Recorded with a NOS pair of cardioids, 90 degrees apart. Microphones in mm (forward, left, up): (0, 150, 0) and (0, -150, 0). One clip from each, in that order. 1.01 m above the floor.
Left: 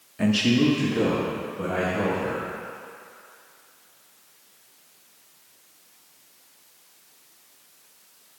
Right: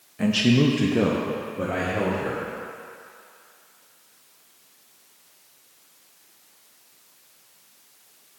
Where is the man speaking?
10° left, 0.6 m; by 2.4 s 65° right, 2 m.